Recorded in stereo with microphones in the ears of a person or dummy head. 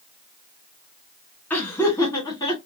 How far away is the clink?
I don't hear a clink.